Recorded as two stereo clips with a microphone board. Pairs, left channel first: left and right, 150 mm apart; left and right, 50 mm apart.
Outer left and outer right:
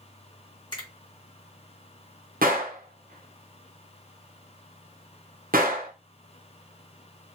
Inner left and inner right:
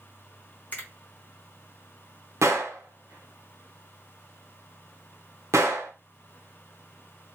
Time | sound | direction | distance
0.7 | a finger snap | 30° left (ahead or behind) | 1.4 m
2.4 | a gunshot | 75° right (ahead or behind) | 0.7 m